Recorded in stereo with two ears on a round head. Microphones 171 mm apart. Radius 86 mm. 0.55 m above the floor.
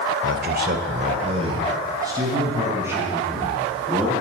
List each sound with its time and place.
0.2 s a man speaking: 60° right (ahead or behind), 1.7 m; by 4.1 s 5° right (ahead or behind), 6.5 m